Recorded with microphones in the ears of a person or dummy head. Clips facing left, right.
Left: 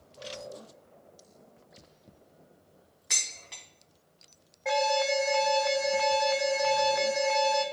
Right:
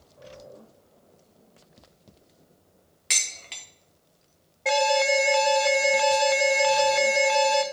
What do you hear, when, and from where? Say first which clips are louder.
3.1 s dishes clattering: right 4 dB; 35° right (ahead or behind), 0.9 m
4.7 s an alarm: right 4 dB; 40° right (ahead or behind), 0.6 m